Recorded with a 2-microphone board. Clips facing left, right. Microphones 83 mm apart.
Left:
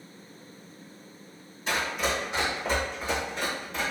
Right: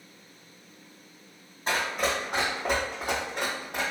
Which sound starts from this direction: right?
Running footsteps, at 1.7 s.